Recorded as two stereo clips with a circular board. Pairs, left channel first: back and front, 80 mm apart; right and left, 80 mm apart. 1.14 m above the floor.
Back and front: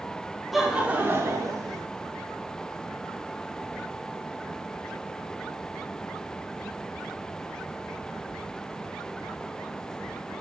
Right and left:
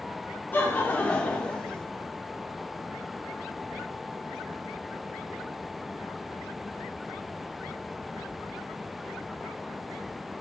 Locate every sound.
0.5 s laughter: 90° right, 0.7 m; by 1.9 s 15° right, 1.0 m